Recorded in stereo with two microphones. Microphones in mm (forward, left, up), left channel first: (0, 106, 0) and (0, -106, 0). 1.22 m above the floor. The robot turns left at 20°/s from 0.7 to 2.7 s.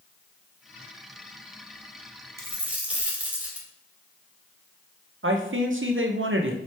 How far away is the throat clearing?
I don't hear throat clearing.